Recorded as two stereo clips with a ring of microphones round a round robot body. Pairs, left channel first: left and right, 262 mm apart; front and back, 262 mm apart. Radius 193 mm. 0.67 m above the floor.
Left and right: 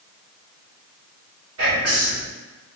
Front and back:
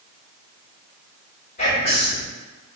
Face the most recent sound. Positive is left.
turn(degrees=-65)